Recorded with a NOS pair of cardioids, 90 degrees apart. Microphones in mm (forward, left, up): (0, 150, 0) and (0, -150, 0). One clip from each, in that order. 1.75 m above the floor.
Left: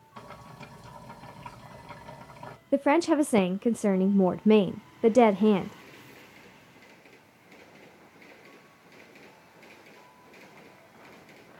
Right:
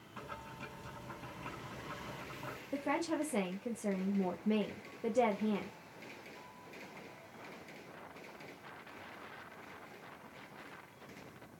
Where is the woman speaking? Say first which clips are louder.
Left 13 dB; 65° left, 0.5 m.